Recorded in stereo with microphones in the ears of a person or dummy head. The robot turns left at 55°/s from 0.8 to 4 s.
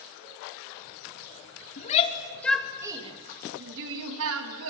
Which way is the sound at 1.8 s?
45° left (ahead or behind).